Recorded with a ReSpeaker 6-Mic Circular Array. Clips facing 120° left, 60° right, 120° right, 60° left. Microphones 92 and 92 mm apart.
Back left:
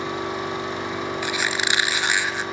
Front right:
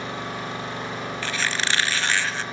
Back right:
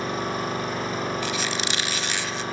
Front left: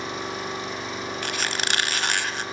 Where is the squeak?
45° left, 1.3 m.